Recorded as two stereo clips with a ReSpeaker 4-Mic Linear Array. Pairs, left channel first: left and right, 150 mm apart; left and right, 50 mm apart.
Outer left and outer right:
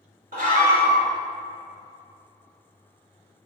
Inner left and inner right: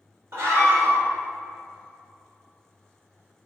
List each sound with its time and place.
0.3 s a scream: 70° right (ahead or behind), 2.5 m